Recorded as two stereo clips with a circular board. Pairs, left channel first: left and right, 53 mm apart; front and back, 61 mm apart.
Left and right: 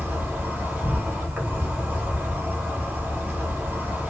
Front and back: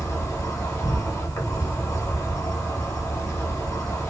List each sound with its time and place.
0.0 s an insect: 35° right, 1.3 m